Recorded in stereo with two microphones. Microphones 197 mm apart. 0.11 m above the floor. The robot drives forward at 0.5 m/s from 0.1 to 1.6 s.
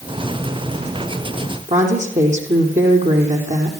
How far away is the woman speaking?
About 4.5 m.